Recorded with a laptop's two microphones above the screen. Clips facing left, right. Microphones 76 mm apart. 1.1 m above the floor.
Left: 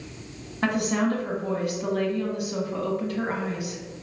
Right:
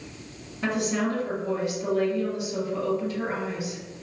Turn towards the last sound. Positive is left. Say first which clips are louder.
# left 2 dB
turn(degrees=55)  # may be behind; listen again after turning